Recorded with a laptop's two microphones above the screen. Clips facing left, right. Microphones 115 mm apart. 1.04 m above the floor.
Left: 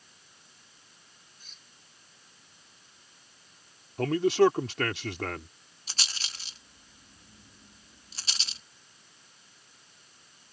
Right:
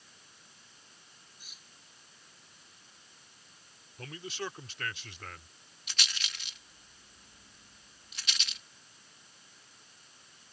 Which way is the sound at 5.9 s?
35° left (ahead or behind).